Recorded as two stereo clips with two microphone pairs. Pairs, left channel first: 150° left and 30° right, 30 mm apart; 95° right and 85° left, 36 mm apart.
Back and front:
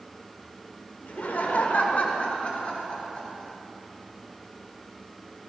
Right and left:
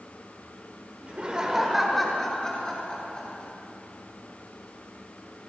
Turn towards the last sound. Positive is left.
turn(degrees=-150)